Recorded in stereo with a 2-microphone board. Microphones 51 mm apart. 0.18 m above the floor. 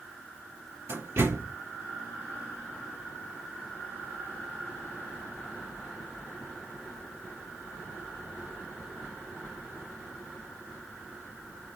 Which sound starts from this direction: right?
A door slam, at 0.9 s.